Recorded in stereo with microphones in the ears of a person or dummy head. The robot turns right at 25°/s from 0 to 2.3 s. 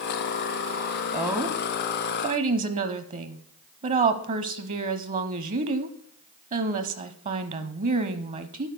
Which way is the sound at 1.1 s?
15° right (ahead or behind).